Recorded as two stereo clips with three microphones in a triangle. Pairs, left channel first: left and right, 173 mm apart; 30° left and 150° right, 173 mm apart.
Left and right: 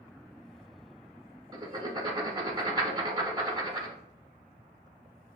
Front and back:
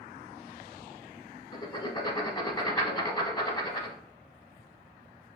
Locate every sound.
1.5 s writing: 30° right, 0.7 m